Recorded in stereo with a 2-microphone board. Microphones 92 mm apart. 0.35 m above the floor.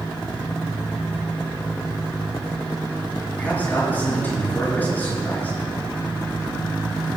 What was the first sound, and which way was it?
A man speaking, 20° left (ahead or behind).